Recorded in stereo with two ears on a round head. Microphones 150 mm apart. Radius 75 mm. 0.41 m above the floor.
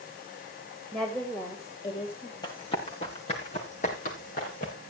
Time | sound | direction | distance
0.9 | a woman speaking | centre (ahead or behind) | 2 m
2.4 | running footsteps | 30° left (ahead or behind) | 4 m